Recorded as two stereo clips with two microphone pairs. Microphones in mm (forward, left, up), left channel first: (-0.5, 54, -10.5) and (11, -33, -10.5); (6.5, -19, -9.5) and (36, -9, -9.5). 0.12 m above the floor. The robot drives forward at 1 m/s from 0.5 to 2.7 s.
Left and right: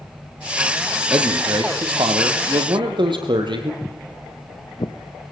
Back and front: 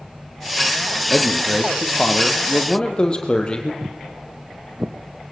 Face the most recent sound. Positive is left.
turn(degrees=75)